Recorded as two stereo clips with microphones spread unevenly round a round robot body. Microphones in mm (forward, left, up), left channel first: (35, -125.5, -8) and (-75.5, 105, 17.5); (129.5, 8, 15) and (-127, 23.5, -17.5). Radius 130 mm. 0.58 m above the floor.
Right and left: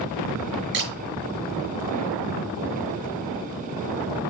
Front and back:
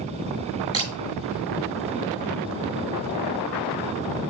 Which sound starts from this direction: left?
A camera shutter, at 0.7 s.